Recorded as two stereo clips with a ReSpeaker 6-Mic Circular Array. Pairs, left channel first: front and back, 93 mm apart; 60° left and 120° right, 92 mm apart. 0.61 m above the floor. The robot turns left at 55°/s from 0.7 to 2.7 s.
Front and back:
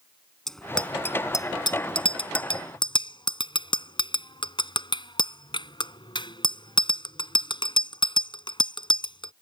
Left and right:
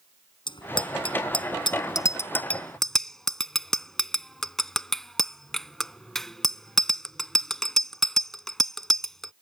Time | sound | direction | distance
0.5 | a bicycle bell | 85° left | ?